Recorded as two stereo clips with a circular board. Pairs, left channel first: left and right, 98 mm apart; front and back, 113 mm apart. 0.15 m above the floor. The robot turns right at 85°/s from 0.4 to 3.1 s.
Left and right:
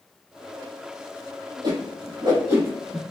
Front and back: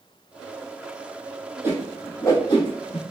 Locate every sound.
1.6 s a whoosh: 115° right, 0.9 m; by 3.0 s 5° left, 0.9 m